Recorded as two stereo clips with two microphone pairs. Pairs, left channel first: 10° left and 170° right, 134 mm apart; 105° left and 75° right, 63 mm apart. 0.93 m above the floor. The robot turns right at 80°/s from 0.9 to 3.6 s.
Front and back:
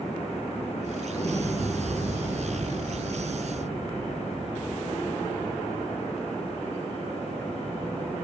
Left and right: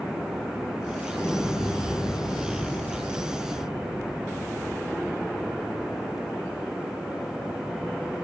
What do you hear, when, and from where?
1.1 s an explosion: 45° left, 1.0 m; by 6.0 s 115° right, 1.0 m